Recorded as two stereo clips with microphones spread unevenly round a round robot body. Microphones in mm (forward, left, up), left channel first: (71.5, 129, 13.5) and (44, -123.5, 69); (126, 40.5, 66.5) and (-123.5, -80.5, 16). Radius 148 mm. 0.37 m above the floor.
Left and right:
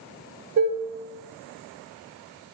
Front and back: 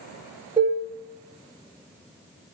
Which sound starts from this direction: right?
Dishes clattering, at 0.6 s.